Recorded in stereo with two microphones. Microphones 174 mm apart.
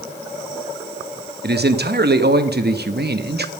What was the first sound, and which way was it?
A man speaking, 75° right (ahead or behind).